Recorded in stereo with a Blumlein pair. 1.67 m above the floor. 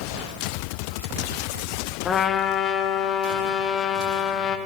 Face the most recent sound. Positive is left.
turn(degrees=25)